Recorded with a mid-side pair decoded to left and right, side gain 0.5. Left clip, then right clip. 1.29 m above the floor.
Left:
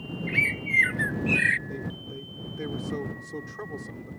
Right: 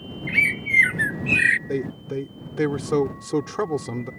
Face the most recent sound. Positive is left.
turn(degrees=-70)